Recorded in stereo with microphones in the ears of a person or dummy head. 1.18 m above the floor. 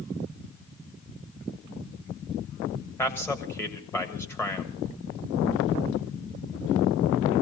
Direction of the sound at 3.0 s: 15° left (ahead or behind).